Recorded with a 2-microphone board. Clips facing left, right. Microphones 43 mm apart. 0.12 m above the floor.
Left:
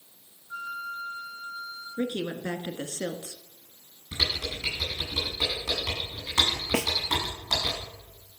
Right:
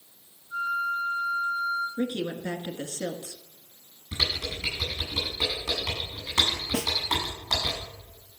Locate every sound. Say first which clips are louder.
0.5 s a flute: right 7 dB; 75° left (ahead or behind), 1.8 m
2.0 s a woman speaking: right 1 dB; 25° left (ahead or behind), 1.2 m
4.1 s typing on a keyboard: even; 5° right (ahead or behind), 7.5 m
6.7 s a snare drum: left 3 dB; 70° left (ahead or behind), 0.6 m